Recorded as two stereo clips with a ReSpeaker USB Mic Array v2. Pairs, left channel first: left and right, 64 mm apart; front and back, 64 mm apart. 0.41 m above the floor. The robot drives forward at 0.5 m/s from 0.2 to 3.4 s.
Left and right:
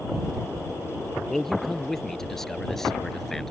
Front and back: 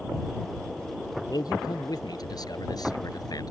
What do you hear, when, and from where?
1.3 s a man speaking: 5° left